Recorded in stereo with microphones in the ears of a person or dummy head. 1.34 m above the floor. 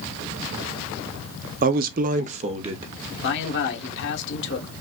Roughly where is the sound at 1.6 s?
Right.